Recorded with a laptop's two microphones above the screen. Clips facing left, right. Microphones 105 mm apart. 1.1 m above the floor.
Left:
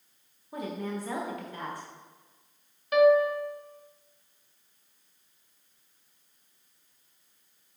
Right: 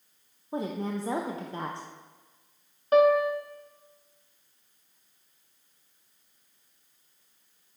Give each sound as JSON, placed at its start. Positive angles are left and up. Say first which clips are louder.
{"t": 0.5, "sound": "a woman speaking", "louder": "right 3 dB", "side_deg": -25, "distance_m": 0.6}
{"t": 2.9, "sound": "a piano", "louder": "even", "side_deg": -35, "distance_m": 0.6}